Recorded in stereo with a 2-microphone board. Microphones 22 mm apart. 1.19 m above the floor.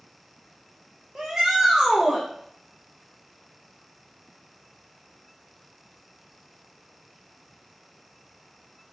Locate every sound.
1.1 s a shout: 30° right (ahead or behind), 0.6 m